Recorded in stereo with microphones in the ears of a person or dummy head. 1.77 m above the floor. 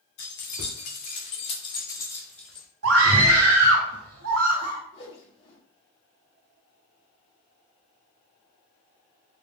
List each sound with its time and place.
0.2 s keys jangling: 60° left (ahead or behind), 1.1 m; by 2.7 s centre (ahead or behind), 1.1 m
2.8 s a scream: 80° right, 1.1 m
4.9 s a whoosh: 30° left (ahead or behind), 1.7 m